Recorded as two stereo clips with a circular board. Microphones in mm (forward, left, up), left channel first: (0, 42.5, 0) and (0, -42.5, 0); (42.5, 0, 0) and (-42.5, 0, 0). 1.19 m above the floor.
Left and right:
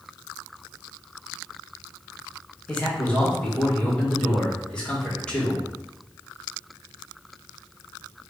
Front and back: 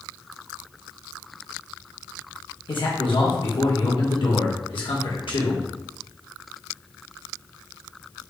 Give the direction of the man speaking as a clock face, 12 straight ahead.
12 o'clock.